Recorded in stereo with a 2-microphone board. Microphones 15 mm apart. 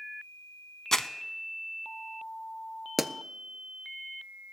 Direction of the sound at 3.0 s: 20° right (ahead or behind).